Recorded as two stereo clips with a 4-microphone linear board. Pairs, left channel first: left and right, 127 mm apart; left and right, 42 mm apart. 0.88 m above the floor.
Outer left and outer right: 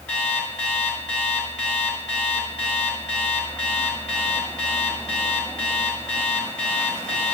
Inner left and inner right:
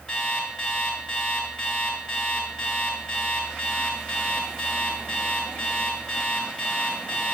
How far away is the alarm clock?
About 5.5 m.